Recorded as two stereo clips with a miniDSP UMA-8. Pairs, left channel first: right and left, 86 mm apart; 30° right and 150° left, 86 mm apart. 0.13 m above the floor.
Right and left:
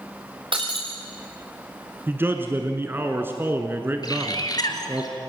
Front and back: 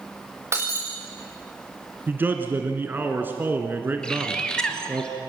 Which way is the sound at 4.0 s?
110° right.